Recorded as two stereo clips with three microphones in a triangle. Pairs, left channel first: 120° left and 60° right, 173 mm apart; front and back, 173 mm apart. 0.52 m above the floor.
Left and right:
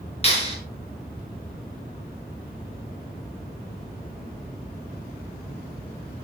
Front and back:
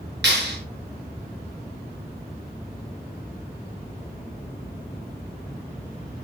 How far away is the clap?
About 6.5 m.